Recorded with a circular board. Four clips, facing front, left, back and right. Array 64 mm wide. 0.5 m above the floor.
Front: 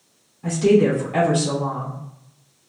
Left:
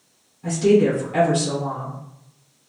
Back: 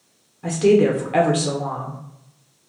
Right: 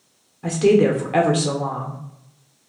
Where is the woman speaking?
125° right, 0.9 m.